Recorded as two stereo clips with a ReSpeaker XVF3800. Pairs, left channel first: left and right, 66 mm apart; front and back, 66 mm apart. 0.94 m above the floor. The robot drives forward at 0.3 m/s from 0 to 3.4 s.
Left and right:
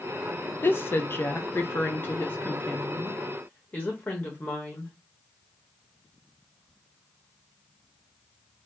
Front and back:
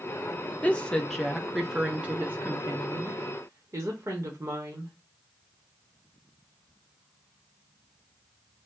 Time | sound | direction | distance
0.6 | a woman speaking | 55° left | 0.6 m